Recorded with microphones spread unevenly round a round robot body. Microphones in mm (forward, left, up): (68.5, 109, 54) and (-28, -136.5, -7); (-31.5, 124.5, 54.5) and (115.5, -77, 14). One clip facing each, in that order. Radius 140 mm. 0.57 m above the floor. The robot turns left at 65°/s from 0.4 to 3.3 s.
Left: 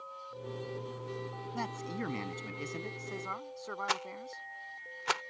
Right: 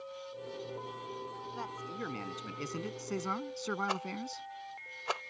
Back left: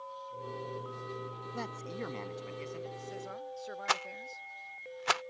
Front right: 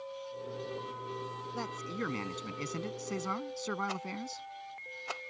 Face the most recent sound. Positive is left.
turn(degrees=130)